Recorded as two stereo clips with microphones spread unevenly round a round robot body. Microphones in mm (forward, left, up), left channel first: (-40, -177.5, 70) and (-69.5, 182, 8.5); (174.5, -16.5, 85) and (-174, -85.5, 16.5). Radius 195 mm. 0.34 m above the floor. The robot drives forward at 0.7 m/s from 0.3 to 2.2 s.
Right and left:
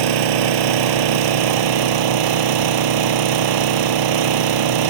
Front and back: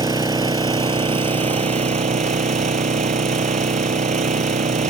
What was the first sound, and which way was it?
An engine running, 110° left.